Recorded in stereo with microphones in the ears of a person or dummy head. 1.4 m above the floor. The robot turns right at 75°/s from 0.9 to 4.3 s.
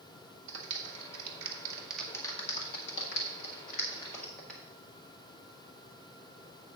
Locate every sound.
0.5 s a clap: 65° right (ahead or behind), 1.7 m; by 4.6 s 5° right (ahead or behind), 1.7 m